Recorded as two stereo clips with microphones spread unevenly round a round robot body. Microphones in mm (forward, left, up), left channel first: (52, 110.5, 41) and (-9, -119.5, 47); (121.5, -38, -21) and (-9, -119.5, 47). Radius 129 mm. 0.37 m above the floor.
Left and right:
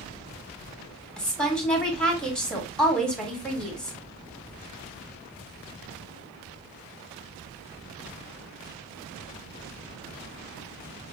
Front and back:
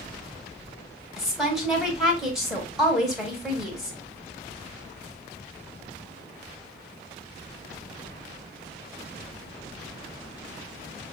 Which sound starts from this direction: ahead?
A woman speaking, at 1.2 s.